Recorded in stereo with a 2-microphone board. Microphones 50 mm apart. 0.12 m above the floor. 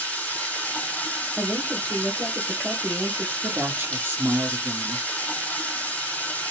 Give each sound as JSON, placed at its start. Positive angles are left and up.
{"t": 0.0, "sound": "running water", "side_deg": 25, "distance_m": 2.0}
{"t": 1.4, "sound": "a woman speaking", "side_deg": -10, "distance_m": 2.0}
{"t": 3.4, "sound": "a woman speaking", "side_deg": -50, "distance_m": 1.7}